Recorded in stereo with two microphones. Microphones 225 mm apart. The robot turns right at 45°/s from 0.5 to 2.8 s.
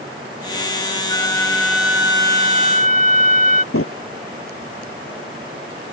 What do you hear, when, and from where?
1.1 s a flute: 155° left; by 3.6 s 130° right
3.7 s a drawer: 80° left